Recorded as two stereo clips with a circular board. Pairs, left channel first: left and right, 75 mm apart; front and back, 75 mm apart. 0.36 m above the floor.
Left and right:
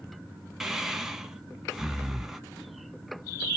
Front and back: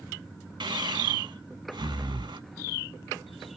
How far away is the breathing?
About 0.7 m.